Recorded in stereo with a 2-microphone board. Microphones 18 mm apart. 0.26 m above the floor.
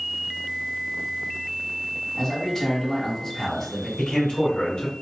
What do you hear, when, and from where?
2.2 s a man speaking: 25° left (ahead or behind), 1.6 m
4.0 s a man speaking: 50° left (ahead or behind), 1.7 m